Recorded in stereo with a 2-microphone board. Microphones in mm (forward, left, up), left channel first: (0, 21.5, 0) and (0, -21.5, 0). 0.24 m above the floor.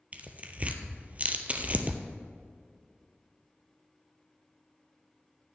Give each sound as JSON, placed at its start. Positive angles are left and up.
{"t": 0.1, "sound": "tearing paper", "side_deg": -35, "distance_m": 0.9}